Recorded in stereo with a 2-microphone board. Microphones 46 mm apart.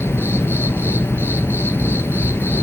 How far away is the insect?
About 0.7 m.